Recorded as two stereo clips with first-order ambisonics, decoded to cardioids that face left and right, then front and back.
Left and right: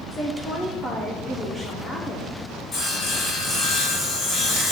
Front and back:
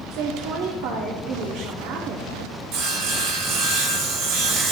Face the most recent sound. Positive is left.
turn(degrees=145)